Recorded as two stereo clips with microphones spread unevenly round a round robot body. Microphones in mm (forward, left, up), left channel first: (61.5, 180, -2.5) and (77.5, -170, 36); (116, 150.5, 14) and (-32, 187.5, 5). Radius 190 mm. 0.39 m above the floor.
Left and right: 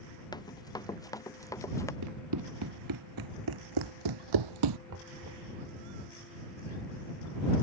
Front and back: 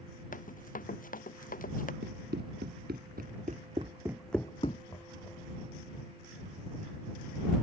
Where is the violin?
I don't hear a violin.